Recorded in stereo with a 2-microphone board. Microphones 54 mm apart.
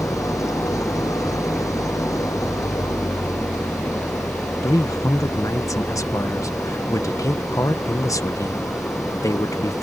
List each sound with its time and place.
0.0 s an engine running: 85° left
4.6 s a man speaking: 80° left